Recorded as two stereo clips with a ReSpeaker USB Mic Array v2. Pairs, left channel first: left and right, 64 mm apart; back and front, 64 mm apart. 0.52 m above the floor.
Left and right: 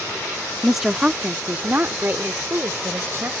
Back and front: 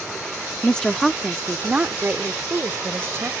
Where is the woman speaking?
Straight behind; by 3.3 s 45° right.